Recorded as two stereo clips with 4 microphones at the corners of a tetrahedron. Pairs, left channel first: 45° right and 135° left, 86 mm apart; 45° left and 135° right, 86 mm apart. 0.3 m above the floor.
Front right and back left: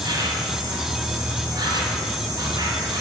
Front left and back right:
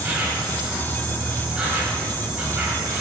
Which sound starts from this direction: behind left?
An insect, at 0.0 s.